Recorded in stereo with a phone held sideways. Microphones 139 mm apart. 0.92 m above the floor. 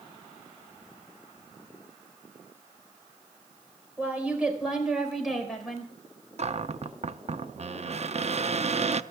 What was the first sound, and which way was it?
A woman speaking, 10° right (ahead or behind).